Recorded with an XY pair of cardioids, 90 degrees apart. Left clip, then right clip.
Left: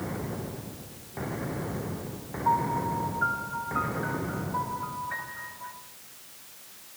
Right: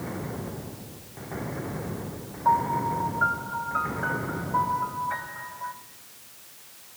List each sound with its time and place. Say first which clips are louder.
2.5 s a piano: right 3 dB; 70° right, 4.5 m